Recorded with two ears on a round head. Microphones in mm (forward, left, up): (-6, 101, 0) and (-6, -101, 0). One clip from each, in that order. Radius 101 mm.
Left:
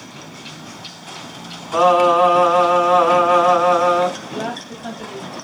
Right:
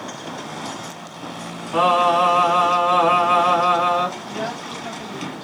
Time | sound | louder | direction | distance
1.7 | singing | left 3 dB | 35° right (ahead or behind) | 3 m
4.2 | a woman speaking | left 1 dB | 30° left (ahead or behind) | 2 m